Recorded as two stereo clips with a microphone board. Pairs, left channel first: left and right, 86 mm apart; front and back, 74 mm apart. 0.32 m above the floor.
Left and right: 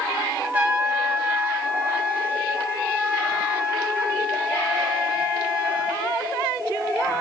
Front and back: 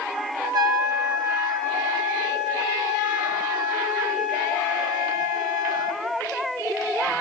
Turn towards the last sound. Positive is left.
turn(degrees=-160)